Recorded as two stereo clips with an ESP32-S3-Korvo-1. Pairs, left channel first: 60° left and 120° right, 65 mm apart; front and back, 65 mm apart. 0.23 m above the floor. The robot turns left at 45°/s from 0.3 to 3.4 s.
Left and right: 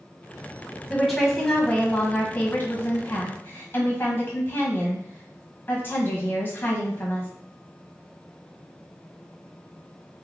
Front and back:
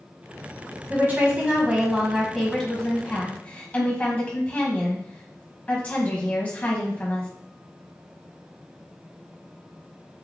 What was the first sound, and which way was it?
A woman speaking, 160° left.